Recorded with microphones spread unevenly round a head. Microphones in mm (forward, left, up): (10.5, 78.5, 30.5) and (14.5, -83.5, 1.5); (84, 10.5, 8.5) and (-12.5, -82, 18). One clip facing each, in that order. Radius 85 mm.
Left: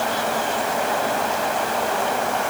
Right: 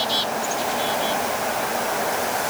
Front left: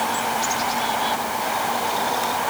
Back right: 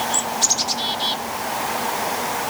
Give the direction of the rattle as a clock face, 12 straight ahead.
No rattle in this recording.